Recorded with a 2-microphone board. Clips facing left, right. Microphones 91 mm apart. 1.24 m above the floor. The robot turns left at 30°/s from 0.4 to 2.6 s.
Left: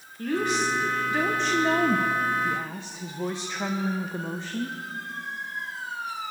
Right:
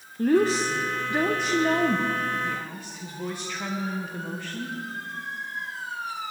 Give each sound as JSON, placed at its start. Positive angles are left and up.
{"t": 0.2, "sound": "a woman speaking", "azimuth_deg": -140, "distance_m": 0.7}